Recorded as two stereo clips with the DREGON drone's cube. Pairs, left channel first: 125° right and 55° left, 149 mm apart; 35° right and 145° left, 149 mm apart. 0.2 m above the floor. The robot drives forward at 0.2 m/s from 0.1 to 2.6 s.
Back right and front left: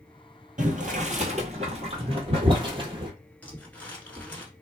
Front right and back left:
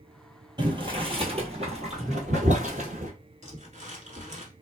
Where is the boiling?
90° left, 0.9 m; by 3.1 s 110° left, 1.0 m.